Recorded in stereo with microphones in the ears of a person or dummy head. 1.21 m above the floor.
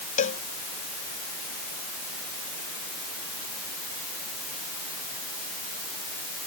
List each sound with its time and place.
0.2 s a cowbell: 40° left (ahead or behind)